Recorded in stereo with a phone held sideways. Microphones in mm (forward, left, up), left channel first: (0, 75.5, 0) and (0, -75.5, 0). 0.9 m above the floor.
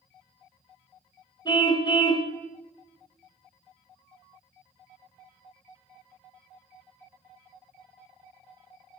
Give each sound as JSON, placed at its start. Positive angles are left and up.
{"t": 1.4, "sound": "a car horn", "side_deg": 30, "distance_m": 2.5}